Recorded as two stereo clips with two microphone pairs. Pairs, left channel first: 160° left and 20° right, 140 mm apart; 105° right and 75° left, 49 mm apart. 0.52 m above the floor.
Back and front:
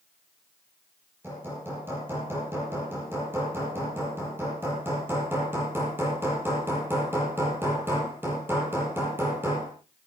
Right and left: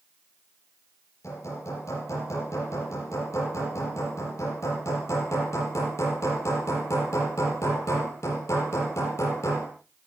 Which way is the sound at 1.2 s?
95° right.